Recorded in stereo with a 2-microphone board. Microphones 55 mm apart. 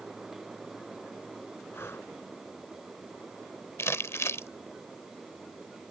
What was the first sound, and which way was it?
Breathing, 45° left (ahead or behind).